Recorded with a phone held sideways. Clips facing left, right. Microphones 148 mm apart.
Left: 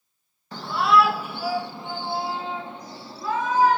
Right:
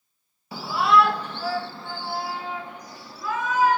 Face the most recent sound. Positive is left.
turn(degrees=35)  # may be behind; listen again after turning